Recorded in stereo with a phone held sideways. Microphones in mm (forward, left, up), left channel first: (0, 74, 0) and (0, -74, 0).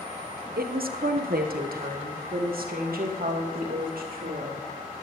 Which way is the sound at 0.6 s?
85° right.